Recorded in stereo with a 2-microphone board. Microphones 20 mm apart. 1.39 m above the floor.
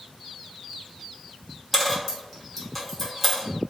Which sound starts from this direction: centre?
A dropped coin, at 1.7 s.